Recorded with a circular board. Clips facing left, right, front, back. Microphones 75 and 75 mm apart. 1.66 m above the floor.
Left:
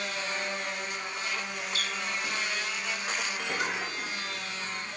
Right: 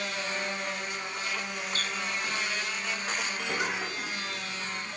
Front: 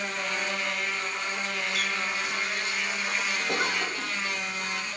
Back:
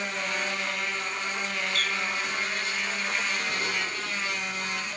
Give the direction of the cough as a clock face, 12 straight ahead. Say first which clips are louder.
Right 1 dB, front 2 dB; 12 o'clock.